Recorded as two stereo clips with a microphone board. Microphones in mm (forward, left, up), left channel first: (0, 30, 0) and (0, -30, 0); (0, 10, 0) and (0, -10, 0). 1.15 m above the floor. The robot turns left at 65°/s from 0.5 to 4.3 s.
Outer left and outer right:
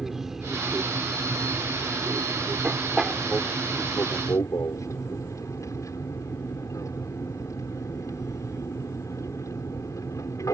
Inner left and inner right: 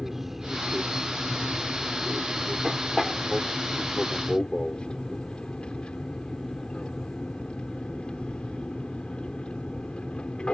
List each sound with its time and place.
0.0 s an aircraft: 5° right; by 10.5 s 105° left